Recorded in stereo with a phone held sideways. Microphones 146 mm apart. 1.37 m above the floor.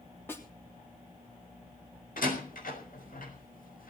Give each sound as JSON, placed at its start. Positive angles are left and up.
{"t": 0.3, "sound": "a snare drum", "side_deg": 15, "distance_m": 3.5}
{"t": 2.2, "sound": "a door slam", "side_deg": 75, "distance_m": 5.5}